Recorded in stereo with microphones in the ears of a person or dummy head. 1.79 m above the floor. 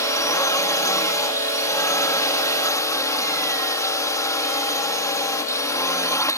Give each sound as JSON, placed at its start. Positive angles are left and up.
{"t": 0.0, "sound": "a drone", "side_deg": 15}